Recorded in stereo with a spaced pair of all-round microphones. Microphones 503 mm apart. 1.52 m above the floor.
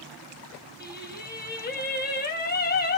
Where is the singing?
20° left (ahead or behind), 1.0 m.